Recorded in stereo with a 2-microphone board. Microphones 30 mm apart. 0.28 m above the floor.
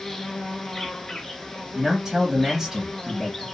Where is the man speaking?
15° right (ahead or behind), 2 m.